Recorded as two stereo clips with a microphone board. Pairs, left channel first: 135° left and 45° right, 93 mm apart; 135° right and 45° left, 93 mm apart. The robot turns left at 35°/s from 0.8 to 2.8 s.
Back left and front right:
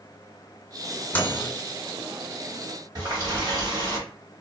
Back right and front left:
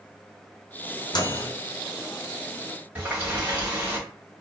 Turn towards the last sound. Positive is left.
turn(degrees=-20)